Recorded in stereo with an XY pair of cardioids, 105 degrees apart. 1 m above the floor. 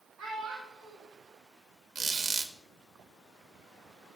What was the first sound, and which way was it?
A child speaking, 65° right.